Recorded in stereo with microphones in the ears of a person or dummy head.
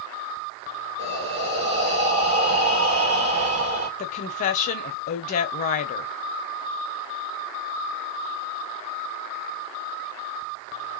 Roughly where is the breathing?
Right.